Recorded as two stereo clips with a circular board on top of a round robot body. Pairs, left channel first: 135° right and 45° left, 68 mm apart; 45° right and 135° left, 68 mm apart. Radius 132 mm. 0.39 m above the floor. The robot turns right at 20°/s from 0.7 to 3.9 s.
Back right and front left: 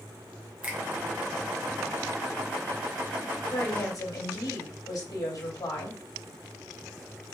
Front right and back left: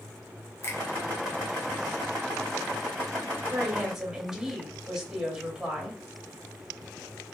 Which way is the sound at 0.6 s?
20° right.